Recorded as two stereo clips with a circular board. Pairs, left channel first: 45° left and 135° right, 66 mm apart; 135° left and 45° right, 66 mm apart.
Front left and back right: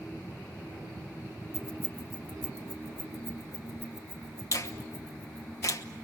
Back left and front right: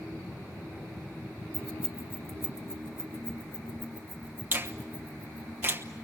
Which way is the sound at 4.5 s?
10° left.